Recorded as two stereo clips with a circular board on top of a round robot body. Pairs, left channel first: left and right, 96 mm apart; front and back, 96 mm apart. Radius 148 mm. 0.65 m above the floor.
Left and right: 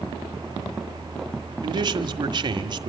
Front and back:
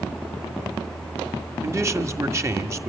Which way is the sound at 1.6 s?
125° right.